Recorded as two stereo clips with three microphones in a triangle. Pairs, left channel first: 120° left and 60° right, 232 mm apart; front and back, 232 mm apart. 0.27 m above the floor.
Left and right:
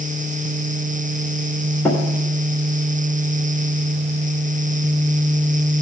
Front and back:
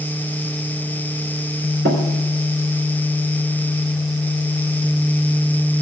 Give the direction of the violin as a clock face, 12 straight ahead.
I don't hear a violin.